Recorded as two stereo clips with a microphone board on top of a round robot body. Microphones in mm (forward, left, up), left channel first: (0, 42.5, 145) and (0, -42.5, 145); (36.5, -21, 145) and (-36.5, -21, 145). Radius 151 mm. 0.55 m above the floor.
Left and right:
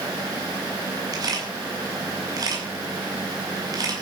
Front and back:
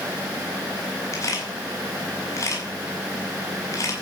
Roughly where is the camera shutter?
Ahead right.